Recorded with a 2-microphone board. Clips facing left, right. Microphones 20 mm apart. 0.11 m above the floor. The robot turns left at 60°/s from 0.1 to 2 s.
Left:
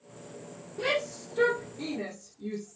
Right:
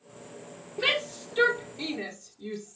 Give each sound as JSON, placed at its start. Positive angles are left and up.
{"t": 0.8, "sound": "a shout", "side_deg": -45, "distance_m": 2.5}